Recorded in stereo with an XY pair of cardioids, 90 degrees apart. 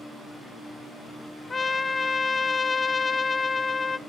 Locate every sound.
1.5 s a trumpet: 30° left, 0.5 m